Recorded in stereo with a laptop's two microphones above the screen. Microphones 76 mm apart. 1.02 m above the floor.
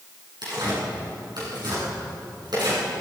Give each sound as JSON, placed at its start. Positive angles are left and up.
{"t": 0.4, "sound": "tearing paper", "side_deg": -70, "distance_m": 8.0}